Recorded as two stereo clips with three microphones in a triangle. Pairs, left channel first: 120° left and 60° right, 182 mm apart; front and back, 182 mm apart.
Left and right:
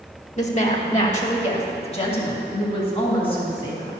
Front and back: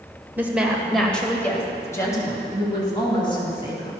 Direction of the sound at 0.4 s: 105° left.